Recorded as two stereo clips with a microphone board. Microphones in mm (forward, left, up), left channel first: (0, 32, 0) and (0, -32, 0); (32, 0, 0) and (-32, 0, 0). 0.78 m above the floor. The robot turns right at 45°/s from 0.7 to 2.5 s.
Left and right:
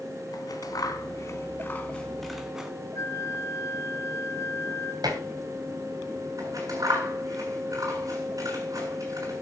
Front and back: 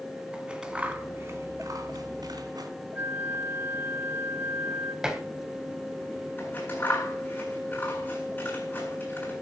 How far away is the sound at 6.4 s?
About 8 m.